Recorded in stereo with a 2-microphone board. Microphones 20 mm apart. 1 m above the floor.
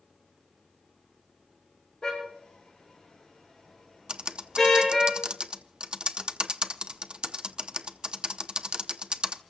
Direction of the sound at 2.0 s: 45° left (ahead or behind).